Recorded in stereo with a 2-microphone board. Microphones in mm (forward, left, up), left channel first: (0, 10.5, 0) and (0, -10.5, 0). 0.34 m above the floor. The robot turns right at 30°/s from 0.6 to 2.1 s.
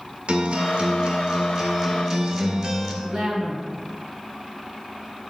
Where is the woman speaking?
60° right (ahead or behind), 3 m.